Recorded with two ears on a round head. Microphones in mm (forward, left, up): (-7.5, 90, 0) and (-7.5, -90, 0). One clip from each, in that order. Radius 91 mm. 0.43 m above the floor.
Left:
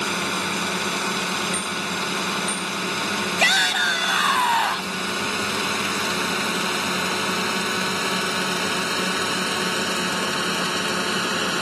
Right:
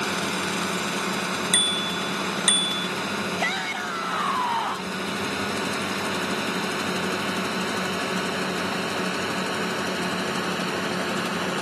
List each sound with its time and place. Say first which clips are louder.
0.0 s a drone: left 2 dB; 20° left (ahead or behind); by 11.6 s 45° left (ahead or behind)
1.5 s a bicycle bell: right 3 dB; 60° right (ahead or behind)
3.4 s a shout: left 12 dB; 70° left (ahead or behind)